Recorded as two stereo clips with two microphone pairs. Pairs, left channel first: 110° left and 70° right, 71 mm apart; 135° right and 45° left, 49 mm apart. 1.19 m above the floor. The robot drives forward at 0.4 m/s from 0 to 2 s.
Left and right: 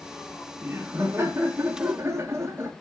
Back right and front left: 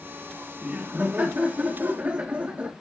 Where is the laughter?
10° right, 2 m.